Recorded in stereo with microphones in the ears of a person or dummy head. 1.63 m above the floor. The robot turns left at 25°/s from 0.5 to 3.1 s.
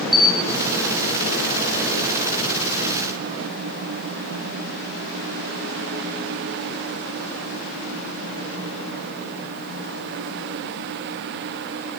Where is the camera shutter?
20° left (ahead or behind), 1.5 m.